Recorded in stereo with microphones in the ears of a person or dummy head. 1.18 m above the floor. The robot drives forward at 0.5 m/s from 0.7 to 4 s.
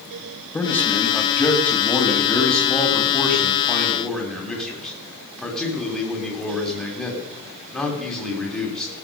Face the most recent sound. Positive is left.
turn(degrees=5)  # may be behind; listen again after turning